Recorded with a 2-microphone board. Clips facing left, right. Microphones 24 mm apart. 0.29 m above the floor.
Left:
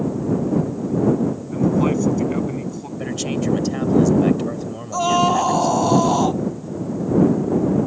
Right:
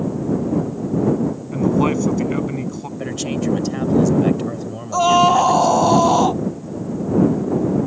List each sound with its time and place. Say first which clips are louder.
1.5 s a man speaking: right 1 dB; 20° right (ahead or behind)
3.0 s a man speaking: even; 5° left (ahead or behind)
4.9 s a scream: right 4 dB; 15° right (ahead or behind)